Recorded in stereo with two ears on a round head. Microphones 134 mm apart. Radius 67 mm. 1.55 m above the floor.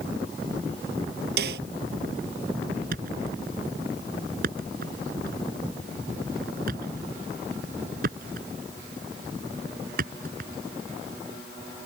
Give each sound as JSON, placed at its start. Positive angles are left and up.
{"t": 1.4, "sound": "a snare drum", "side_deg": -75}
{"t": 2.9, "sound": "a thud", "side_deg": -65}